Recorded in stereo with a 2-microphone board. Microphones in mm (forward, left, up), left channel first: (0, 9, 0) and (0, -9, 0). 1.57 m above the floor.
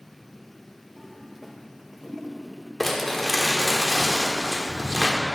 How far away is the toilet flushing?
About 0.8 m.